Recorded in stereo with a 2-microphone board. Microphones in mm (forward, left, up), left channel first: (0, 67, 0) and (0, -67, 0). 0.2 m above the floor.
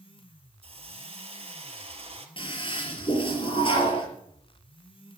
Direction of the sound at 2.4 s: 40° left (ahead or behind).